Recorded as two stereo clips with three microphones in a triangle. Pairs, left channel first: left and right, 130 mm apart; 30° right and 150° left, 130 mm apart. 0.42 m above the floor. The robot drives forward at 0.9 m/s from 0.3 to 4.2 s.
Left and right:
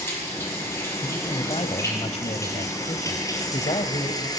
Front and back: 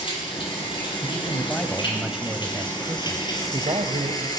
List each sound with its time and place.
0.0 s running water: 20° left, 9 m; by 4.4 s 30° left, 5.5 m
1.0 s a man speaking: 45° left, 2.5 m; by 4.3 s 125° left, 2 m